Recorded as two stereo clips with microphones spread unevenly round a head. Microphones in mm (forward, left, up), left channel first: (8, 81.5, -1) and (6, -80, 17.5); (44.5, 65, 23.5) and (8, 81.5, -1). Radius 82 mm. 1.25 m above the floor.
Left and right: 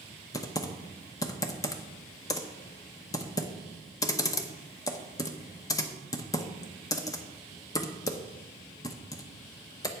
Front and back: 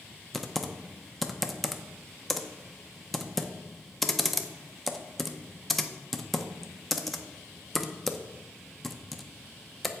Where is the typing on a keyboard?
20° left, 0.7 m.